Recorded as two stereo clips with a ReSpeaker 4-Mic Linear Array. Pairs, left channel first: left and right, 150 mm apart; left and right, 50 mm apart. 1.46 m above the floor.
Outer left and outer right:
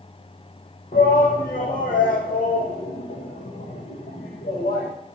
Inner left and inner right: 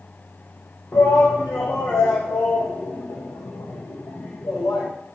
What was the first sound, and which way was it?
A shout, 80° left.